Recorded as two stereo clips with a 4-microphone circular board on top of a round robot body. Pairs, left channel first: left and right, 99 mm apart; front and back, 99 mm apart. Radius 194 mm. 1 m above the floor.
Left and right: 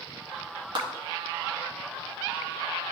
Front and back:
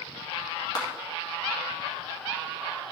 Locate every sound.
0.8 s a clap: 50° right, 2.5 m